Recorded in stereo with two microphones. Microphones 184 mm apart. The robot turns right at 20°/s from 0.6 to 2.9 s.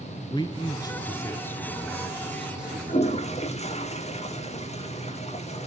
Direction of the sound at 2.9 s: 35° left (ahead or behind).